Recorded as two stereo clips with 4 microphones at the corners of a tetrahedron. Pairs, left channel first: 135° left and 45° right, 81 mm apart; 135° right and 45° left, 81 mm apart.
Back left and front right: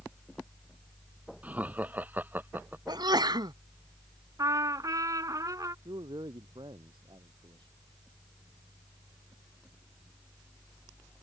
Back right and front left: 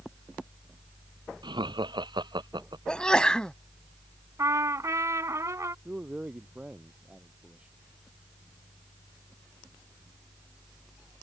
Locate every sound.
1.4 s laughter: 25° left; by 2.8 s 20° left
2.9 s a sneeze: 60° right
4.4 s a trumpet: 5° right
5.8 s a man speaking: 30° right